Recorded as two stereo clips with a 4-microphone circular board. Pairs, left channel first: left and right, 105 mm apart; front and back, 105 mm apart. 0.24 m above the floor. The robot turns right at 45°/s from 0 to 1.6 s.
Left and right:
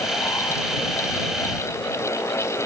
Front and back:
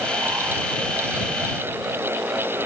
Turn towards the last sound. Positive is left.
No sound to turn to.